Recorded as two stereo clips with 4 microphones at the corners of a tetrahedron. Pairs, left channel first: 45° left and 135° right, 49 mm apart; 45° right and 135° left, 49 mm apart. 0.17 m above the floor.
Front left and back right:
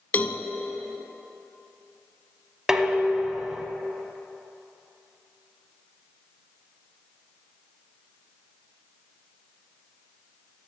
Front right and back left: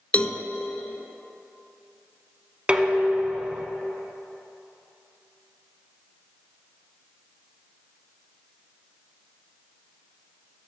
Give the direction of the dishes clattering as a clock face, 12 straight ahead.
7 o'clock.